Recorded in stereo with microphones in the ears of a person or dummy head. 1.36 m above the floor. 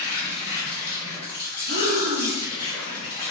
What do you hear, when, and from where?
0.0 s an insect: 10° left (ahead or behind), 0.9 m
1.7 s breathing: 35° right (ahead or behind), 0.8 m